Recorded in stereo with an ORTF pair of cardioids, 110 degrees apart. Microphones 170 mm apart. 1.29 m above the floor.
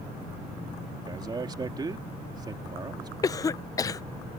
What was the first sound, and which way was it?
A man speaking, 25° right.